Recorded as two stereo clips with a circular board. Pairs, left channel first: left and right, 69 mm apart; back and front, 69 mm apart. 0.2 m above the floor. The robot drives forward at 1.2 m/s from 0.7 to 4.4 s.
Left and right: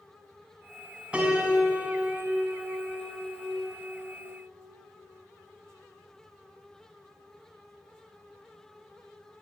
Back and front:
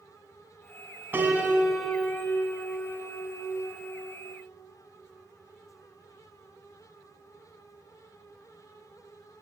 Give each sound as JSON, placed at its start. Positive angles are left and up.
{"t": 1.1, "sound": "a piano", "azimuth_deg": -30, "distance_m": 1.7}